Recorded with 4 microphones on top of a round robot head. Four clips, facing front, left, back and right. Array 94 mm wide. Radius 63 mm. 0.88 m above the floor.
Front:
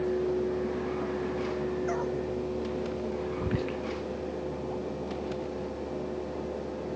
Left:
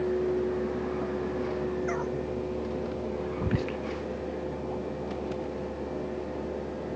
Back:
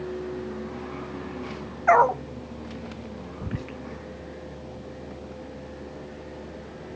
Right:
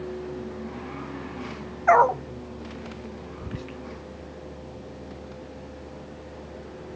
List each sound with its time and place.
1.9 s a dog barking: 135° right
3.4 s whispering: 80° left